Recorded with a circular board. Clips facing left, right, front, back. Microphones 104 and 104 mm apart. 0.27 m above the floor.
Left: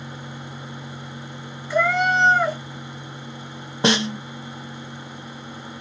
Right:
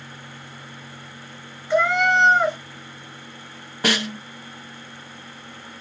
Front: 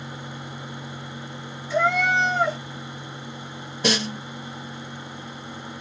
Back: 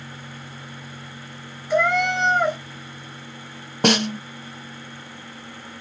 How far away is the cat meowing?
About 1.4 m.